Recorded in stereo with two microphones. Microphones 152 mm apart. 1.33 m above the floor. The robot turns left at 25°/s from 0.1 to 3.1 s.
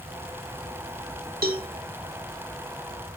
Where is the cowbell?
70° right (ahead or behind), 1.7 m.